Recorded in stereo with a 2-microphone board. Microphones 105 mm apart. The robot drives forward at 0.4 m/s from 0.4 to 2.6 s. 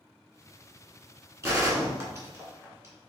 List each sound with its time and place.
1.4 s a gunshot: 30° right (ahead or behind), 1.5 m